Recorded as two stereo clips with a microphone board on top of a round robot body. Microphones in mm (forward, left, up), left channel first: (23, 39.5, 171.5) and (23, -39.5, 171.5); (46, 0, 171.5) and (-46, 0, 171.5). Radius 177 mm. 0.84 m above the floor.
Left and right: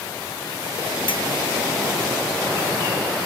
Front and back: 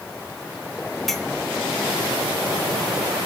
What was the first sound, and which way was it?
A clink, 90° left.